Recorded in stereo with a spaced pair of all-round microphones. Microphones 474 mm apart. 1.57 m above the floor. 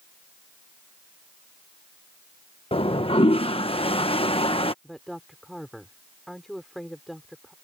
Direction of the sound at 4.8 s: Centre (ahead or behind).